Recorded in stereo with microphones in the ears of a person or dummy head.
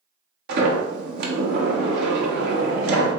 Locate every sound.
0.5 s a sliding door: 65° right (ahead or behind), 1.0 m